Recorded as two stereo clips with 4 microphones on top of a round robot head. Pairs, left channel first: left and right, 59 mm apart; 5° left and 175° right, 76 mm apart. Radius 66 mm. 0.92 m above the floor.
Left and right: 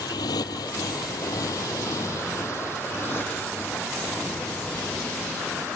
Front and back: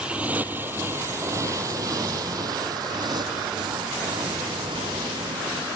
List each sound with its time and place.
0.0 s a motorcycle: 105° left; by 5.8 s 165° left